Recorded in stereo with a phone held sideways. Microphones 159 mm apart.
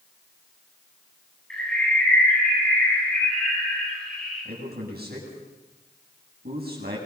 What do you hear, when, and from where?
1.5 s a bird: 5° left (ahead or behind), 10 m
4.5 s a man speaking: 80° right, 8.5 m